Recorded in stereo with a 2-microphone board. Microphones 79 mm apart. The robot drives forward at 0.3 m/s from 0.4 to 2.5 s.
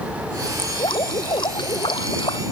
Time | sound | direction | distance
0.6 | dripping | 80° left | ?